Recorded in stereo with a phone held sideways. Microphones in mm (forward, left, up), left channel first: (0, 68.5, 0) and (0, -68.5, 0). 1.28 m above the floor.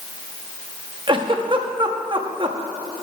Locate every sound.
1.1 s a giggle: 40° right (ahead or behind), 0.7 m